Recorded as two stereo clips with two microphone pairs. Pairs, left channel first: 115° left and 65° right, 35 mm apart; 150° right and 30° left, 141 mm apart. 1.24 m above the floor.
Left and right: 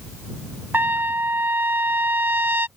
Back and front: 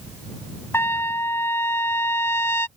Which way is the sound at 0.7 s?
75° right.